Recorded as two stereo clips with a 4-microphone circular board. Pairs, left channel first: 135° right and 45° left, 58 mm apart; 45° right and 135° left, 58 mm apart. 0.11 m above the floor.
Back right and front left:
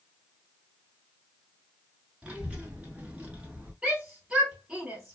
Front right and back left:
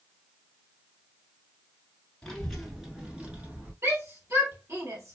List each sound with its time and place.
2.2 s a child speaking: 20° left, 1.1 m; by 3.7 s 95° left, 1.4 m
3.8 s a shout: 120° left, 2.5 m